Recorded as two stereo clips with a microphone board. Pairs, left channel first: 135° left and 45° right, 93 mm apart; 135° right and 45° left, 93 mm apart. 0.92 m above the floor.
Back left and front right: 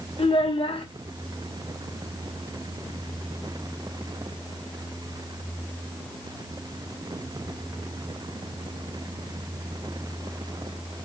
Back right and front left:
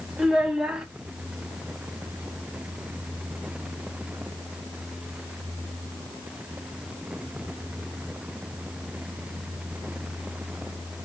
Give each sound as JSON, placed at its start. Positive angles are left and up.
{"t": 0.2, "sound": "a child speaking", "azimuth_deg": 125, "distance_m": 0.8}